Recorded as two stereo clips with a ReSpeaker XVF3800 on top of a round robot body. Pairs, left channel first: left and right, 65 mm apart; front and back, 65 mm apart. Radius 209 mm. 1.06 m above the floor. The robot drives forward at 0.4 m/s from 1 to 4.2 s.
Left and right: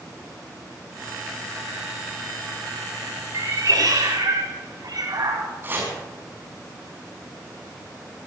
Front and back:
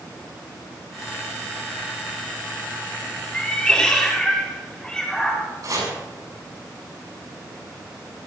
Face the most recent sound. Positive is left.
turn(degrees=-150)